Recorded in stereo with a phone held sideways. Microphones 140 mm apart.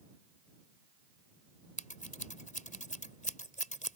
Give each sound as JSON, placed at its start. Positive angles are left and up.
{"t": 1.8, "sound": "scissors", "side_deg": 65}